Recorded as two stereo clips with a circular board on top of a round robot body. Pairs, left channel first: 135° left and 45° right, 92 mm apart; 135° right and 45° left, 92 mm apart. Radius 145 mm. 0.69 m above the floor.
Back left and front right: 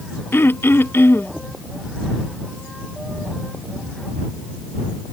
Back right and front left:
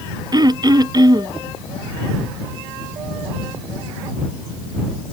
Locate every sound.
0.3 s throat clearing: 75° left